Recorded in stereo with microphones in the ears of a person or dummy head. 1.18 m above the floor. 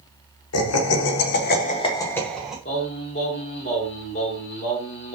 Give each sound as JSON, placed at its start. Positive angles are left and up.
{"t": 0.5, "sound": "laughter", "side_deg": 85, "distance_m": 0.8}
{"t": 2.6, "sound": "singing", "side_deg": 35, "distance_m": 0.9}